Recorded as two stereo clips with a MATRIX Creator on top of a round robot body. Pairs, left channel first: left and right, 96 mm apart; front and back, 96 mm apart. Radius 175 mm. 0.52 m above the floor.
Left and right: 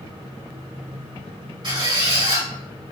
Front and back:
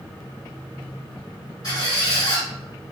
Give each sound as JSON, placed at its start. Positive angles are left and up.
{"t": 1.6, "sound": "a squeak", "azimuth_deg": -50, "distance_m": 1.6}